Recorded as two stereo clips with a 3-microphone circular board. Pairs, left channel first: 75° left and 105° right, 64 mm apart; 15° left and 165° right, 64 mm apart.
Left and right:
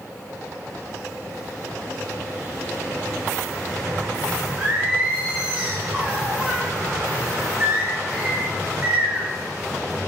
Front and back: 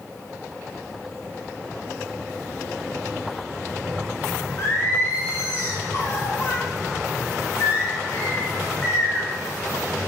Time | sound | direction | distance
4.6 | singing | 35° right | 0.7 m